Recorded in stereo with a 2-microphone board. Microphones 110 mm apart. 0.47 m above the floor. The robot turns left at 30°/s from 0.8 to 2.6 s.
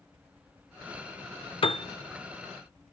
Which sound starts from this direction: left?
A piano, at 1.6 s.